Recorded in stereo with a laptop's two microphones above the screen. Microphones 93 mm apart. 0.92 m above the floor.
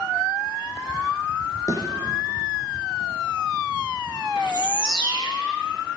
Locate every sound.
1.7 s a thud: 40° left (ahead or behind), 3 m
4.4 s a bird: 60° left (ahead or behind), 1.7 m